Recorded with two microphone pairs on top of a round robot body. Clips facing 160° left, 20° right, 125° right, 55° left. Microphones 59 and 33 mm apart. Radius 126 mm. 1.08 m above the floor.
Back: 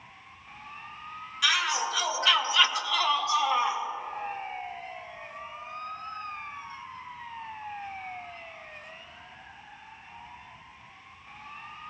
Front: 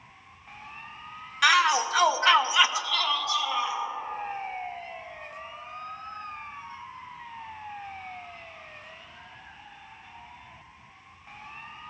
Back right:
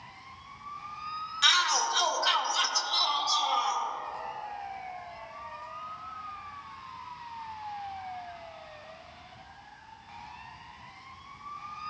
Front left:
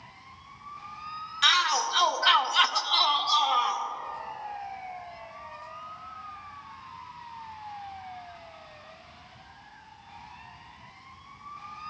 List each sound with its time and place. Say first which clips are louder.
1.4 s a shout: front 6 dB, front left 2 dB; 20° right, 1.6 m; by 3.8 s 115° left, 1.6 m